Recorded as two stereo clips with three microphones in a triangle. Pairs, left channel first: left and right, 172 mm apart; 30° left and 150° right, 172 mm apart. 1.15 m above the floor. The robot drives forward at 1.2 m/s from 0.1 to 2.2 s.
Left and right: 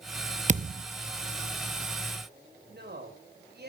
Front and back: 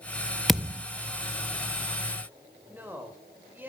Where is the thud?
60° right, 0.6 m; by 0.8 s 110° right, 0.6 m.